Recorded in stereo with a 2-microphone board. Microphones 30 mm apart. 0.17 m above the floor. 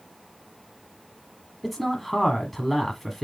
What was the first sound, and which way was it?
A man speaking, 5° left (ahead or behind).